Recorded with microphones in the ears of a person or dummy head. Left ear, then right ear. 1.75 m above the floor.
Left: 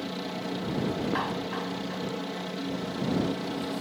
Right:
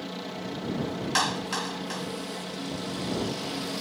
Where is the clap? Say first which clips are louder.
Right 4 dB; 85° right.